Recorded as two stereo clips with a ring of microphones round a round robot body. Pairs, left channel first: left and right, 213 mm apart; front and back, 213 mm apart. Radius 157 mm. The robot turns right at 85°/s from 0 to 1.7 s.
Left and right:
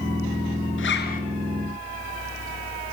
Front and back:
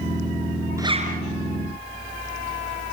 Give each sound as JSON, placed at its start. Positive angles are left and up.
{"t": 0.8, "sound": "a zipper", "azimuth_deg": 105, "distance_m": 6.0}